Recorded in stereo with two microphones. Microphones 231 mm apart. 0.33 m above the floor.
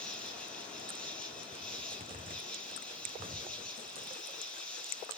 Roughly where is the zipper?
Right.